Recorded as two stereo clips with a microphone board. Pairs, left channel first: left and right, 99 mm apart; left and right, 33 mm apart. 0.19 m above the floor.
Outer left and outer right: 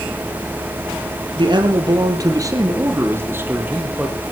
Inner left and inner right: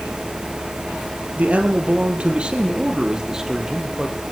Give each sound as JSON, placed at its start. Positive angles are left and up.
{"t": 1.4, "sound": "a man speaking", "side_deg": -50, "distance_m": 4.0}